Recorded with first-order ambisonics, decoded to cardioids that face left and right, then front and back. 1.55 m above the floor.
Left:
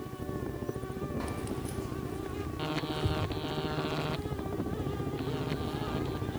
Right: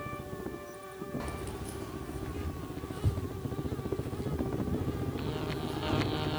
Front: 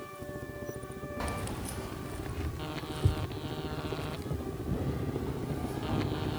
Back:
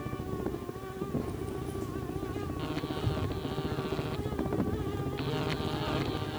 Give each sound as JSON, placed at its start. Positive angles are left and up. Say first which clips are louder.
{"t": 1.2, "sound": "keys jangling", "louder": "left 2 dB, even", "azimuth_deg": 10, "distance_m": 1.3}